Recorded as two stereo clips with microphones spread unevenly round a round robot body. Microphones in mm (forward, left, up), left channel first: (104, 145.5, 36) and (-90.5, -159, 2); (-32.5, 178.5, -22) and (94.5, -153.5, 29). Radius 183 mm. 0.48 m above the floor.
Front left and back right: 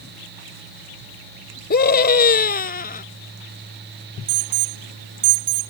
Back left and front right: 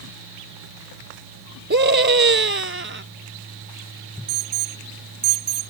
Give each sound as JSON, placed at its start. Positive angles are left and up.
{"t": 1.7, "sound": "a scream", "azimuth_deg": -10}
{"t": 4.3, "sound": "an alarm", "azimuth_deg": -140}